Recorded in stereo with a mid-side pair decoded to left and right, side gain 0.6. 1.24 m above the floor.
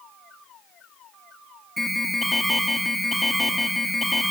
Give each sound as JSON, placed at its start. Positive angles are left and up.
{"t": 1.8, "sound": "an alarm", "azimuth_deg": 10, "distance_m": 2.0}